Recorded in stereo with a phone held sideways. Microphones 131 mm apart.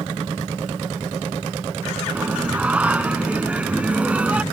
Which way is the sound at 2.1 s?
10° right (ahead or behind).